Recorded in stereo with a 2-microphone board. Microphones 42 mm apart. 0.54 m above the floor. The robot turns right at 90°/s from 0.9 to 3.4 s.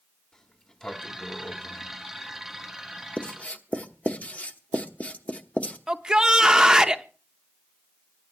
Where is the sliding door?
20° left (ahead or behind), 1.4 m; by 3.1 s 25° right (ahead or behind), 1.4 m.